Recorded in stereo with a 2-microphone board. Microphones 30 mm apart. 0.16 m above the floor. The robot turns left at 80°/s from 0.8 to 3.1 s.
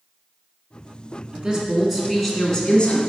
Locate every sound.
1.3 s a woman speaking: 110° right, 1.4 m; by 3.0 s 115° left, 1.4 m